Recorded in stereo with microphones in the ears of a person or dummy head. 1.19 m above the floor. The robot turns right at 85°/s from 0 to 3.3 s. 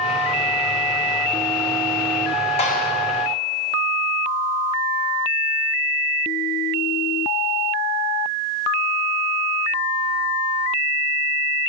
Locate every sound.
2.6 s a clap: 40° left (ahead or behind), 7 m; by 2.9 s 70° left (ahead or behind), 7 m